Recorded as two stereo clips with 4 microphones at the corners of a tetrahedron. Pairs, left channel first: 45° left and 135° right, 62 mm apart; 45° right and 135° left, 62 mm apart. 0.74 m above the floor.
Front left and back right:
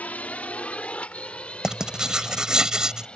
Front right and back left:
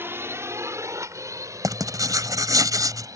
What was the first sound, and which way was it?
A drone, 100° left.